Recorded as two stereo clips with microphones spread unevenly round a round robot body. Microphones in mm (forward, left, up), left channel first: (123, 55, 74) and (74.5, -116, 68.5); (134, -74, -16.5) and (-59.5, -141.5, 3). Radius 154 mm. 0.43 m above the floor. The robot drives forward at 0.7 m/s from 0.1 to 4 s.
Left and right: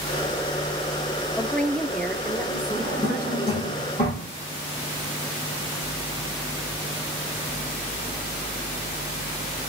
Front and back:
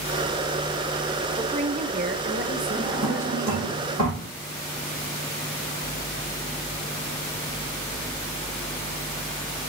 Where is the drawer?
145° left, 6 m; by 4.3 s 150° left, 7 m.